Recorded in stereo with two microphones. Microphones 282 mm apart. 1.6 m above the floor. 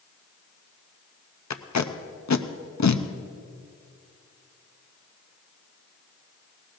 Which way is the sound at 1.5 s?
70° left (ahead or behind).